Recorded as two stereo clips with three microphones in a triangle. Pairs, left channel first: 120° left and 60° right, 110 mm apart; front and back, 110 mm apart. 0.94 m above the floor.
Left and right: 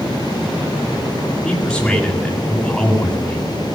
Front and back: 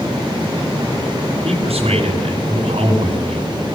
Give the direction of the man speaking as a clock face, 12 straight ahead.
5 o'clock.